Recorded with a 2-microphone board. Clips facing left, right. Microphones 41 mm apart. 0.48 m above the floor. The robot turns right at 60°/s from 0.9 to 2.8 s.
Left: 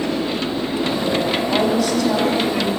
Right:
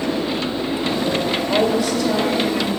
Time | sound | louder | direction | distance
1.5 | a woman speaking | right 1 dB | 55° right | 1.7 m